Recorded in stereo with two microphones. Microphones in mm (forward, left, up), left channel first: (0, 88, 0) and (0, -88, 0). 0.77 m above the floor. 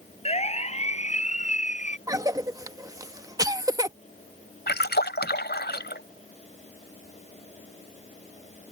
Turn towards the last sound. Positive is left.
turn(degrees=75)  # may be behind; listen again after turning